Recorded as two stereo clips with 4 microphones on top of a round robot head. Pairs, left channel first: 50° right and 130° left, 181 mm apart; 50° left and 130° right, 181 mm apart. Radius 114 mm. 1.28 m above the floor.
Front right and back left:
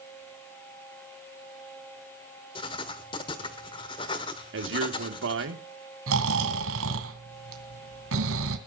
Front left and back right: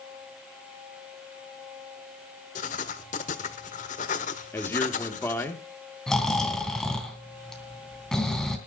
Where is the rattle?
No rattle in this recording.